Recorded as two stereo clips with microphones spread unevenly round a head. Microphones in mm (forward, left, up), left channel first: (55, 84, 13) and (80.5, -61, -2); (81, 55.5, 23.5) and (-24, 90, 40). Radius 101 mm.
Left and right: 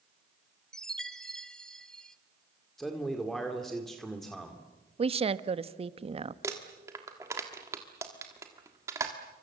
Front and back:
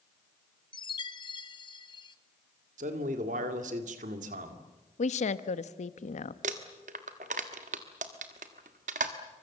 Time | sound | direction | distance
0.7 | a chime | 10° left | 1.4 m
2.8 | a man speaking | 170° right | 2 m
5.0 | a woman speaking | 30° right | 1.0 m
6.4 | crumpling | 155° right | 1.3 m